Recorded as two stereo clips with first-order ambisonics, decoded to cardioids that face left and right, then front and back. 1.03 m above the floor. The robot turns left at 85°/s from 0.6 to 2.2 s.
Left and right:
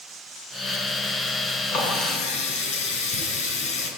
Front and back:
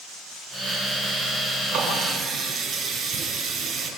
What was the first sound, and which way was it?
A running tap, 140° left.